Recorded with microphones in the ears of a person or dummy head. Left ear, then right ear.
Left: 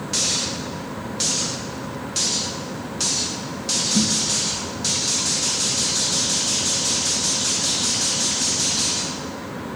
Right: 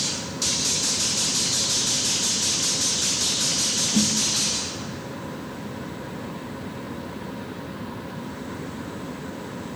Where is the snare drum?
40° right (ahead or behind), 2.5 m.